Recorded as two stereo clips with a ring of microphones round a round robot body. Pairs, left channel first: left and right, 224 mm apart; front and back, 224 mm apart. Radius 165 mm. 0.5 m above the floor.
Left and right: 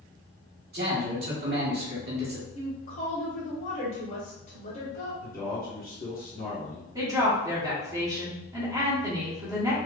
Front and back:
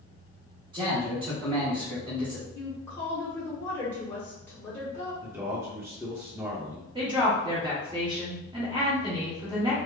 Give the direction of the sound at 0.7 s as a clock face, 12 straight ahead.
4 o'clock.